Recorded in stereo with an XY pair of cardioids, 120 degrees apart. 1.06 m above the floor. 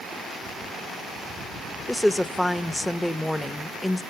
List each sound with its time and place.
1.9 s a woman speaking: 10° left, 0.9 m